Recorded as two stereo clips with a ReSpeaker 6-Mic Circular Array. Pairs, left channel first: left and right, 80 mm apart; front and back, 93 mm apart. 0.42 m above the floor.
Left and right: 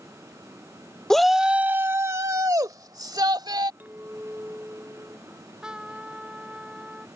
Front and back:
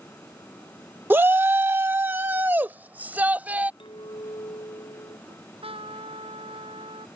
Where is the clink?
25° right.